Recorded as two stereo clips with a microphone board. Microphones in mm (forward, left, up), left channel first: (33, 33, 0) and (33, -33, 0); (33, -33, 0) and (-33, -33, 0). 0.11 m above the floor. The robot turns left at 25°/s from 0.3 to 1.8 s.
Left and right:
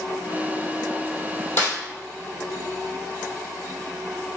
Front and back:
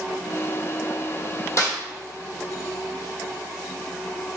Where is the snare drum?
40° left, 1.4 m; by 1.8 s 35° left, 1.4 m.